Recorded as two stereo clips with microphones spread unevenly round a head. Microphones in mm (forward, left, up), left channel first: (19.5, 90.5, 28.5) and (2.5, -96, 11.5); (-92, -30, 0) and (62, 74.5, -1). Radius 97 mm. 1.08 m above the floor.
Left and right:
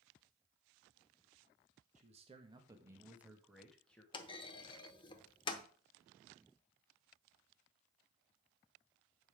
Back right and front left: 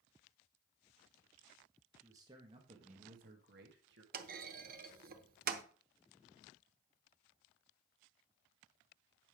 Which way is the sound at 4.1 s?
35° left.